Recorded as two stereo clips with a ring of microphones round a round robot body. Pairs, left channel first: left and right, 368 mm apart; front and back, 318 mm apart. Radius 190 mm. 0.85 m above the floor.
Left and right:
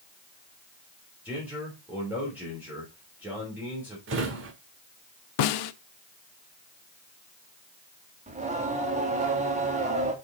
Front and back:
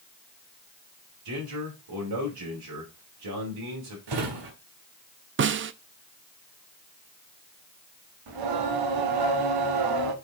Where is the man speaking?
175° right, 3 m.